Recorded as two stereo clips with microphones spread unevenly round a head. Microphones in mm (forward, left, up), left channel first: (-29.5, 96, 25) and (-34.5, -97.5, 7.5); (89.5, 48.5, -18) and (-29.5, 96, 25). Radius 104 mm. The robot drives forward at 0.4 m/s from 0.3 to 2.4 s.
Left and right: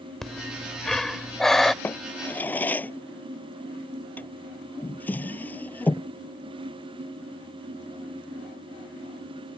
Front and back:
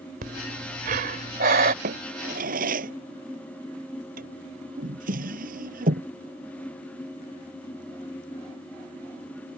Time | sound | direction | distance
0.2 | breathing | 175° left | ?
1.8 | a drawer | 170° left | ?